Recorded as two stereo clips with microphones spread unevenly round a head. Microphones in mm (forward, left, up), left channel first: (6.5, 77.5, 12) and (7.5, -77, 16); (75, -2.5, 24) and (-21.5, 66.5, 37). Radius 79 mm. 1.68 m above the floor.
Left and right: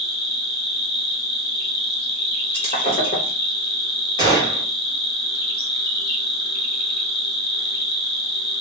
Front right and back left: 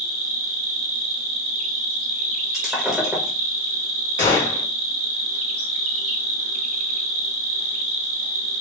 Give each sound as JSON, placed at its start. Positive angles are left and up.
{"t": 0.0, "sound": "an insect", "azimuth_deg": 115, "distance_m": 1.1}
{"t": 2.5, "sound": "breaking glass", "azimuth_deg": 65, "distance_m": 1.1}
{"t": 4.2, "sound": "a gunshot", "azimuth_deg": -25, "distance_m": 2.5}